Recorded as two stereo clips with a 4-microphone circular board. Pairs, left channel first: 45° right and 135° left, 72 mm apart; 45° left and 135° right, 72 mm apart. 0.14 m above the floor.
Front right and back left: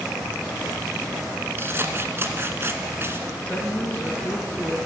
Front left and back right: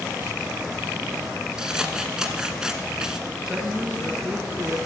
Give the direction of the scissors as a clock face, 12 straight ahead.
7 o'clock.